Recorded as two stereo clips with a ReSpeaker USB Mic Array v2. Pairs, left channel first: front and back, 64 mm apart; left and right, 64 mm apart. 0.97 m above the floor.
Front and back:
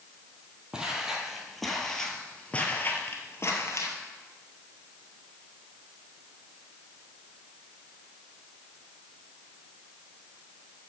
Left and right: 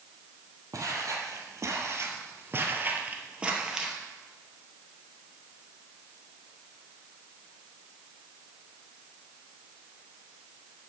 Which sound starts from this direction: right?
Footsteps, at 0.7 s.